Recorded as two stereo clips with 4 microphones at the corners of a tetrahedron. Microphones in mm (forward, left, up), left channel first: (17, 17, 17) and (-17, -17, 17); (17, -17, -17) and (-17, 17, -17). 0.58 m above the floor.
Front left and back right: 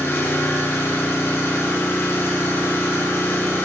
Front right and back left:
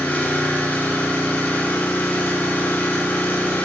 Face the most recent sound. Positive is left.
turn(degrees=10)